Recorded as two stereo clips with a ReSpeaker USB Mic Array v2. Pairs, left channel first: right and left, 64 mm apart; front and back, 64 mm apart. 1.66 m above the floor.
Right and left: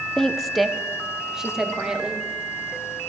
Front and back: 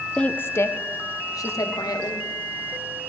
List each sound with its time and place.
0.2 s a woman speaking: 25° right, 0.5 m; by 2.2 s 10° left, 1.9 m